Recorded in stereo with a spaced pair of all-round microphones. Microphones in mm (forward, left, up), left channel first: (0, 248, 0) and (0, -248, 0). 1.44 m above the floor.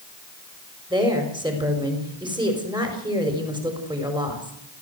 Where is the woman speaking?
10° right (ahead or behind), 5 m.